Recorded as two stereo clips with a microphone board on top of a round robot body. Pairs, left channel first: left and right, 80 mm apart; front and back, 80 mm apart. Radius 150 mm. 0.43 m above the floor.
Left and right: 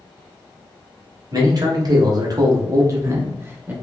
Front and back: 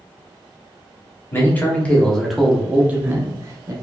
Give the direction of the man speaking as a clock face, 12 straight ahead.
2 o'clock.